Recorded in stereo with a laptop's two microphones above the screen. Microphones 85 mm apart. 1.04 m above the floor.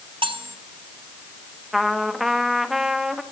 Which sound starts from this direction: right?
Cutlery clinking, at 0.2 s.